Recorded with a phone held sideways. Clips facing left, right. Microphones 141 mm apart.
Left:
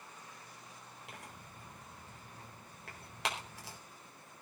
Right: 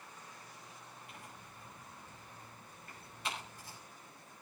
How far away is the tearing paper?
About 4.5 m.